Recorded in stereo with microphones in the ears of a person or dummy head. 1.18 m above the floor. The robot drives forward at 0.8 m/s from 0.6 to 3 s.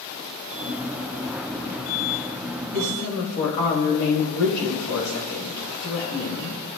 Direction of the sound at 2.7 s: 55° left (ahead or behind).